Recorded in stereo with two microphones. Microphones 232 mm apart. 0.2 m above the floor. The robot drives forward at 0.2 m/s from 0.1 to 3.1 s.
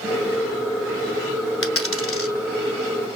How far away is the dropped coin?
About 1.0 m.